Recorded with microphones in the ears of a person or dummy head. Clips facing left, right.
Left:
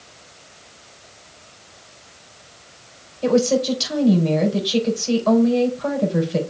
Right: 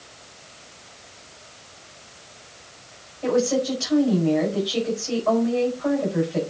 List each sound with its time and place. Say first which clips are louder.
3.2 s a woman speaking: left 4 dB; 55° left (ahead or behind), 4.5 m